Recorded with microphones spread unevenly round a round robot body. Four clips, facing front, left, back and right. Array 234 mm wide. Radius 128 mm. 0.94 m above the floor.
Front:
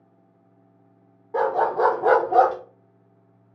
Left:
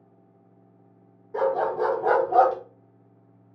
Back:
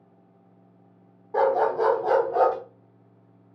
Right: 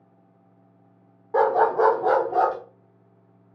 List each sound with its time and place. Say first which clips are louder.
1.3 s a dog barking: right 5 dB, even; 80° right, 1.1 m; by 2.6 s 25° left, 0.8 m